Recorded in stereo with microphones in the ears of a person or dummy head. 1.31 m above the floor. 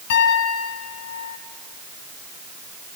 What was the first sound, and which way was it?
A piano, 60° left (ahead or behind).